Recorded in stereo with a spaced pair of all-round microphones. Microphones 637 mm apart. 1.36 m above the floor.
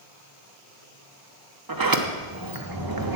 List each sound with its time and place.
1.7 s a sliding door: 35° right (ahead or behind), 0.8 m